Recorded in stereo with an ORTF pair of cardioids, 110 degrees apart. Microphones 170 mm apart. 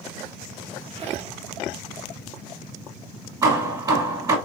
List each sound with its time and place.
0.9 s a squeak: 35° right, 0.9 m
3.4 s hammering: 20° right, 1.5 m